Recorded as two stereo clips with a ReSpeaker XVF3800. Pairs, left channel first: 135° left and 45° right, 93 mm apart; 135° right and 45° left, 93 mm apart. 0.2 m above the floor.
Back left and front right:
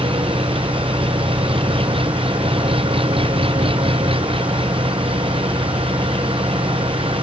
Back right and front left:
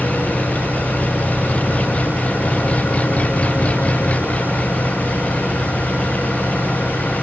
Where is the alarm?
No alarm in this recording.